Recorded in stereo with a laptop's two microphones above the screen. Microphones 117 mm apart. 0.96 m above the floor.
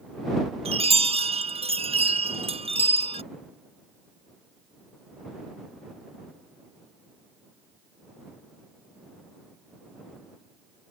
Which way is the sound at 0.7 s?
60° right (ahead or behind).